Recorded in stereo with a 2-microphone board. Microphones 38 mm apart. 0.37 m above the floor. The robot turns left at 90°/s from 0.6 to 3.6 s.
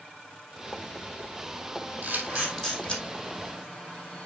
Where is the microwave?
I don't hear a microwave.